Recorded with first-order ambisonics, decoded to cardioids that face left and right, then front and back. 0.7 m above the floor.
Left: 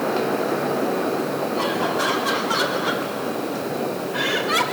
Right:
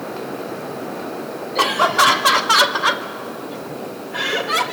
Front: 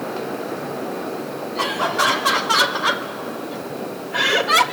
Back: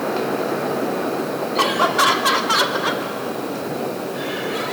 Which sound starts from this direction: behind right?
Laughter, at 1.6 s.